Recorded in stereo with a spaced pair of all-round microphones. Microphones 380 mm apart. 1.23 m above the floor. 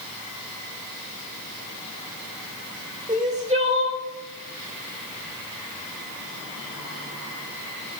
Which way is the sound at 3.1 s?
20° right (ahead or behind).